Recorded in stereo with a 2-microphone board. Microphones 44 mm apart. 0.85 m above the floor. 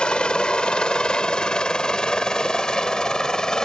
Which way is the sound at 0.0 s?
20° left (ahead or behind).